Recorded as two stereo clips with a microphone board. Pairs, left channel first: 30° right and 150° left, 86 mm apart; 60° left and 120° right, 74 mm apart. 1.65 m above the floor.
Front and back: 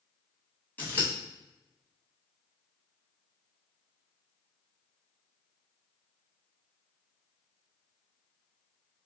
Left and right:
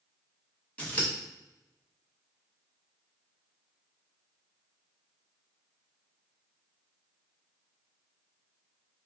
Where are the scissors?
10° left, 1.0 m.